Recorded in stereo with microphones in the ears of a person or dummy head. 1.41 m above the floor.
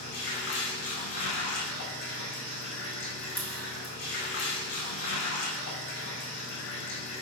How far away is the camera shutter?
About 1.3 m.